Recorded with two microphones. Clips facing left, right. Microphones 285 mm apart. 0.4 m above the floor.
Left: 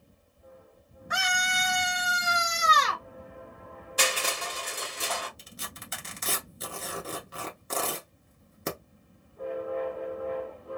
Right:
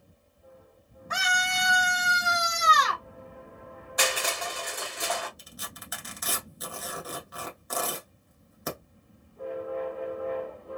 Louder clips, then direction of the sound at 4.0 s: Right 1 dB; 35° left (ahead or behind).